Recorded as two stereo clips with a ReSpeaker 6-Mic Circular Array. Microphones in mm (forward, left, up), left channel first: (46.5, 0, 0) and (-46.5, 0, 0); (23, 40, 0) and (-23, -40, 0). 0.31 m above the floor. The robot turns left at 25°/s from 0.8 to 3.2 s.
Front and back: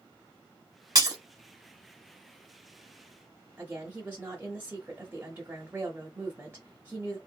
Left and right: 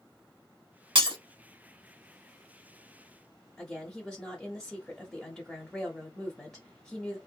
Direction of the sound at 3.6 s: 140° left.